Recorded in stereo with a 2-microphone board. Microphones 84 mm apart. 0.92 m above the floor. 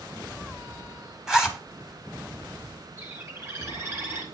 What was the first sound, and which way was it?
A zipper, 5° right (ahead or behind).